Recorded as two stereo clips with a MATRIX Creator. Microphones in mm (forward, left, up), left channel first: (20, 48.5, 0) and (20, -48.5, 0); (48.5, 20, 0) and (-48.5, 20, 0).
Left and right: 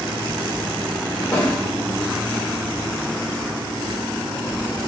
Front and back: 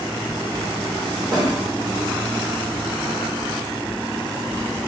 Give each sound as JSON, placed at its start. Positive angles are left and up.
{"t": 1.3, "sound": "a snare drum", "azimuth_deg": 145, "distance_m": 0.9}